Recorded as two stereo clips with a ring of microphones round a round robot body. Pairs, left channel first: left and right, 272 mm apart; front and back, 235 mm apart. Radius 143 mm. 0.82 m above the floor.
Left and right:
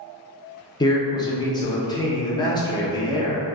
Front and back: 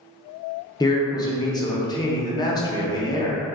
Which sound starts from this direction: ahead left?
A man speaking, at 0.8 s.